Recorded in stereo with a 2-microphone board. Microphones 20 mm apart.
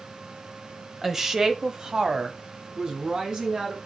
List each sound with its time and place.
1.0 s a woman speaking: 15° right (ahead or behind), 1.2 m; by 3.8 s 40° right (ahead or behind), 3 m